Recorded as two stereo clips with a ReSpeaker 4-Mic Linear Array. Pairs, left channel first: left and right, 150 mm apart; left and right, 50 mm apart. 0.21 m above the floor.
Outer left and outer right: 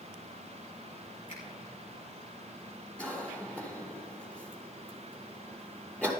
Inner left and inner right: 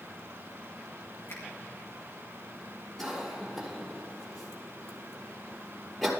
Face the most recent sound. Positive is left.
turn(degrees=10)  # may be behind; listen again after turning